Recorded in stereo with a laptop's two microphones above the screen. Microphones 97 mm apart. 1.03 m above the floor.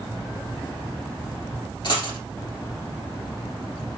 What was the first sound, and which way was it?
A dropped coin, 55° left (ahead or behind).